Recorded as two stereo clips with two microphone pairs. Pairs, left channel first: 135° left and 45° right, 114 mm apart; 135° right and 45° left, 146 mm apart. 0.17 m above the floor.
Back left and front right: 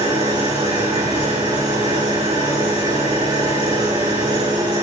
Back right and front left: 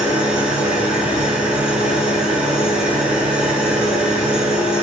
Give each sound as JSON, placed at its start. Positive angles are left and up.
{"t": 0.0, "sound": "an engine running", "azimuth_deg": -40, "distance_m": 8.0}